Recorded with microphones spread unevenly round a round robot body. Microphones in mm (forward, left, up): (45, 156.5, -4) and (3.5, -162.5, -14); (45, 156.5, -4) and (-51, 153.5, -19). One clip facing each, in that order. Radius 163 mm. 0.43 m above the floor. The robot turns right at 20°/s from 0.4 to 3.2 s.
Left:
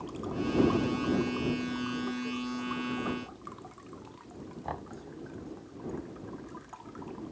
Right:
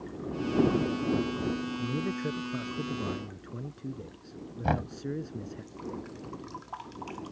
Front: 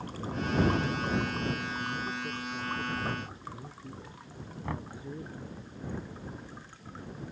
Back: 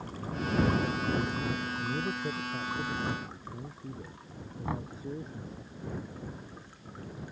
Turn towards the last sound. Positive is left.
turn(degrees=-95)